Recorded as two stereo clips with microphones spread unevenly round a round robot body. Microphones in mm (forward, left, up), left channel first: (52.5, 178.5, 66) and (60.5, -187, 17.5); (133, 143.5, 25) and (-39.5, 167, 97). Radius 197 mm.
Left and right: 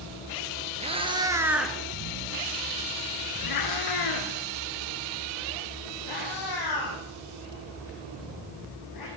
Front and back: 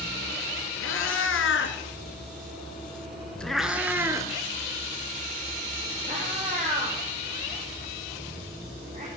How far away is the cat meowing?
About 1.9 m.